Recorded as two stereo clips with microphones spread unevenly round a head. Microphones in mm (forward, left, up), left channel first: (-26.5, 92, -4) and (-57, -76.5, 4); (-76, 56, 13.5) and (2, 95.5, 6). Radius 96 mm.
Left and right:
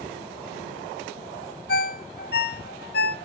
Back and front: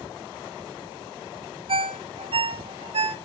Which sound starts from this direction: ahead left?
A ringtone, at 1.7 s.